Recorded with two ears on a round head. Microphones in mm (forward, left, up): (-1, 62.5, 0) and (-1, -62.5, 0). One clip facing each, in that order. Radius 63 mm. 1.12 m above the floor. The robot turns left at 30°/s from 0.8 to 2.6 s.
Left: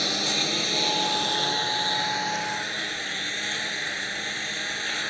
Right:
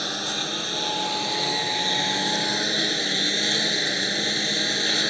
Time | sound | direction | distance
0.0 | a lawn mower | 10° left | ?